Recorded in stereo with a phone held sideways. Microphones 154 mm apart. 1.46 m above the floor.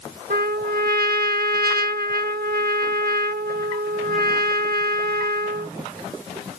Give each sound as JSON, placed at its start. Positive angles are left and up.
{"t": 0.3, "sound": "a trumpet", "side_deg": -80}